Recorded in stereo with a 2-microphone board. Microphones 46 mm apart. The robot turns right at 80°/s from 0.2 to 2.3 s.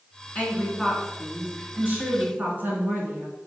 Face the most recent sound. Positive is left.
turn(degrees=-75)